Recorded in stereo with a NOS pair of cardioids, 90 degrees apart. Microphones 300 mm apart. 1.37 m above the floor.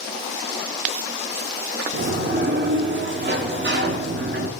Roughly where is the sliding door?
Ahead right.